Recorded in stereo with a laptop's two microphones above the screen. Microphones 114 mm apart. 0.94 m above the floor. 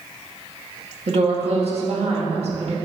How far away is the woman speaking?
About 1.7 m.